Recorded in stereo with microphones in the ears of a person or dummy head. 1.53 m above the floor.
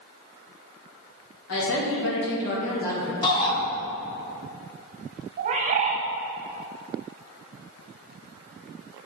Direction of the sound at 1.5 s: 80° left.